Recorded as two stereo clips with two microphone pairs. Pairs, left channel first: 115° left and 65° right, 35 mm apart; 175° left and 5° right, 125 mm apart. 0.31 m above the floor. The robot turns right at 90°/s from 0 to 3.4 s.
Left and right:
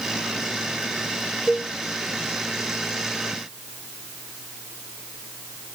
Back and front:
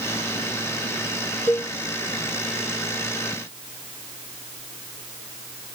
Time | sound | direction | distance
1.5 | a cowbell | 165° right | ?